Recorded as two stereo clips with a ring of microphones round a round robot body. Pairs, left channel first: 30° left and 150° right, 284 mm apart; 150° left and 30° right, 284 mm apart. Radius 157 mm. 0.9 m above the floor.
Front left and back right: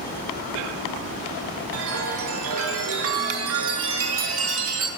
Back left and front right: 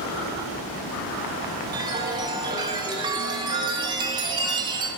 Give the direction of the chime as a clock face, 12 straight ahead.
4 o'clock.